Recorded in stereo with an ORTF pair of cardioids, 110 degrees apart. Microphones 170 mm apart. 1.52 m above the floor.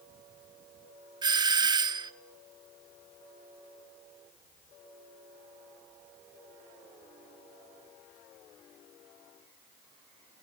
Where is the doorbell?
25° right, 0.8 m.